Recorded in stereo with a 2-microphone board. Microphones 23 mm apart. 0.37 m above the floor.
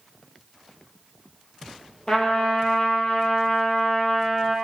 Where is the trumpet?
35° left (ahead or behind), 1.7 m.